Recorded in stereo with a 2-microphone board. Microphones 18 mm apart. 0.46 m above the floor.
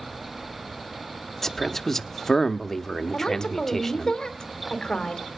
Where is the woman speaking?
30° left (ahead or behind), 2 m.